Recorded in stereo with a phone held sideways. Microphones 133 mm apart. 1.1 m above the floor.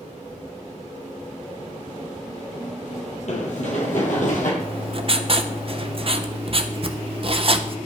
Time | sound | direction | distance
3.3 | running footsteps | 60° left (ahead or behind) | 2 m
4.6 | writing | 45° right (ahead or behind) | 0.5 m